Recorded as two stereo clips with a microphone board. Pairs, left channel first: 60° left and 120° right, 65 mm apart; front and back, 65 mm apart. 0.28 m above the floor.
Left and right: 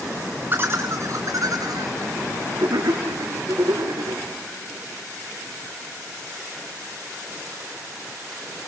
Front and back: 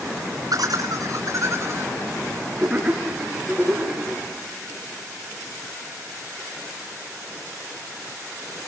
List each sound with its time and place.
0.5 s laughter: 175° right, 2.5 m; by 4.2 s 100° right, 5.5 m